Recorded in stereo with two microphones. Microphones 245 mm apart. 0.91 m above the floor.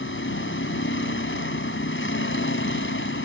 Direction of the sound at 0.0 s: 55° left (ahead or behind).